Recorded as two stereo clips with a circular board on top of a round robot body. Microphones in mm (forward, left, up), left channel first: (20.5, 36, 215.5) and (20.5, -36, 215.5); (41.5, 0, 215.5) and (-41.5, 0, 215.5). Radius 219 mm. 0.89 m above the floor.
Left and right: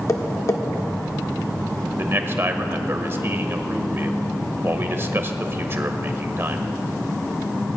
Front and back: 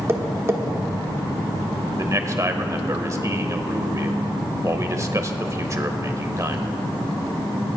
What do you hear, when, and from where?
0.1 s tapping: 125° left, 1.4 m
2.0 s a man speaking: 140° right, 1.5 m